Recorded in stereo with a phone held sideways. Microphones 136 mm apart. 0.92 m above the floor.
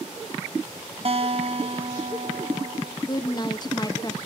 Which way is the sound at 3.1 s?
30° left (ahead or behind).